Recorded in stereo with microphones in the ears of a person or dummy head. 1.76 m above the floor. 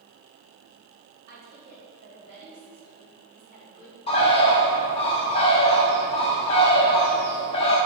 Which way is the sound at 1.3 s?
55° right (ahead or behind).